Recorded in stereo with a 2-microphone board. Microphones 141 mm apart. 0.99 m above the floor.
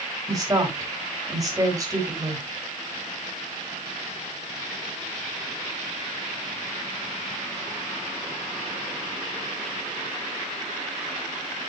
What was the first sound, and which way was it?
A woman speaking, 25° right (ahead or behind).